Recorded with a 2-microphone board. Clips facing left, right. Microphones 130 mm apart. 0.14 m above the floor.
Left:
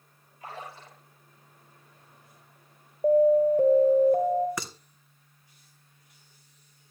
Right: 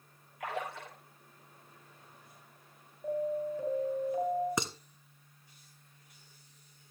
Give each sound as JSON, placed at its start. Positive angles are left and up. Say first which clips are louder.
{"t": 0.4, "sound": "a splash", "louder": "right 4 dB", "side_deg": -80, "distance_m": 6.5}
{"t": 3.0, "sound": "an alarm", "louder": "left 14 dB", "side_deg": 55, "distance_m": 2.5}
{"t": 4.6, "sound": "dishes clattering", "louder": "right 2 dB", "side_deg": -25, "distance_m": 1.2}